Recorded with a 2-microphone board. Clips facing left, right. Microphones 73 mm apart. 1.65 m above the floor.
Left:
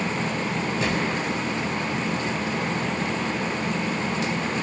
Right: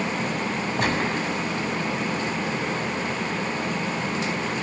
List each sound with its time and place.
0.8 s a gunshot: 60° right (ahead or behind), 6 m